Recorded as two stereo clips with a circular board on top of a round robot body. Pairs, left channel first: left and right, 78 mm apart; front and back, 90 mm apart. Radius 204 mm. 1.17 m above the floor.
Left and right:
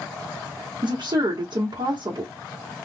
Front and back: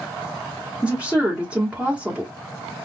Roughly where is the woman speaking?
Right.